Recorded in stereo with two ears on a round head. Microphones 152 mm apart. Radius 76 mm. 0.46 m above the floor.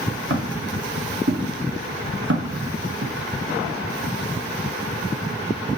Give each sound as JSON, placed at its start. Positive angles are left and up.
{"t": 0.3, "sound": "footsteps", "side_deg": -85, "distance_m": 5.0}